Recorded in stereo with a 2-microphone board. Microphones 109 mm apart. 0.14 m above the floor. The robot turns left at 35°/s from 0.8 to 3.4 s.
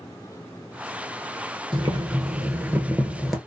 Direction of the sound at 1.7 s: 120° right.